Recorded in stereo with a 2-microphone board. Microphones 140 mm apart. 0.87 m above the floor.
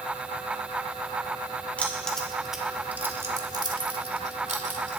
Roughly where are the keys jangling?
Centre.